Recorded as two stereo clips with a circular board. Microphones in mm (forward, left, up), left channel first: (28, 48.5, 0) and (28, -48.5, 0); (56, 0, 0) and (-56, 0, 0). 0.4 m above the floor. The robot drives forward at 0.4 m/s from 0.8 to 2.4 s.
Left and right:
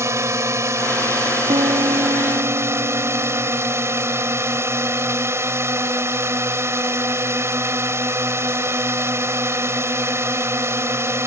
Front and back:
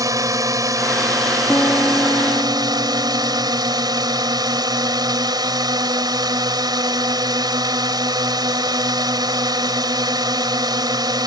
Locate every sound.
0.0 s a drone: 135° right; by 11.3 s 145° right
1.5 s a piano: 70° right; by 3.5 s 75° right